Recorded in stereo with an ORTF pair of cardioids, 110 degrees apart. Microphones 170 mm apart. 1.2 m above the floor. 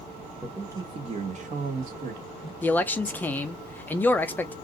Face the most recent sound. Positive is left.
turn(degrees=10)